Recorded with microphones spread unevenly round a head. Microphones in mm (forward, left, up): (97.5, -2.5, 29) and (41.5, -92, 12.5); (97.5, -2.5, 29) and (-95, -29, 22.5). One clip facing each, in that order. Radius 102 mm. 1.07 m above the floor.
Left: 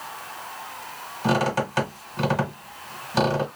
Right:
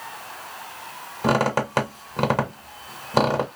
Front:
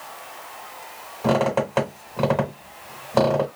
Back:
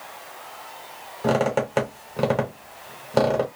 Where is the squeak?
105° right, 1.4 m.